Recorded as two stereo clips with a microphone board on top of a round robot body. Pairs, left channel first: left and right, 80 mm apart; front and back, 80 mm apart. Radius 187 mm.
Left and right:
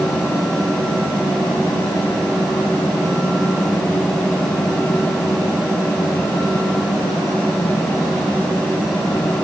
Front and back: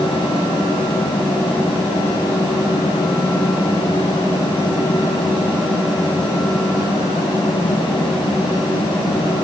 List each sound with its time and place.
Only background noise.